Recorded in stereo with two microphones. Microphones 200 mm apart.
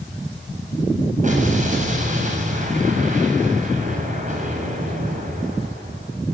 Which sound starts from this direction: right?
An explosion, at 1.2 s.